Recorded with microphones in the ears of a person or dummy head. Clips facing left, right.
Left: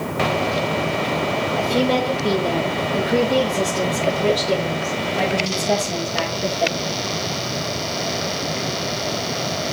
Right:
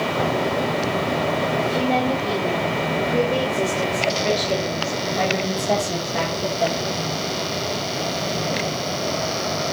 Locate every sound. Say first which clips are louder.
1.6 s a woman speaking: left 4 dB; 75° left (ahead or behind), 2 m; by 6.8 s 5° right (ahead or behind), 1.9 m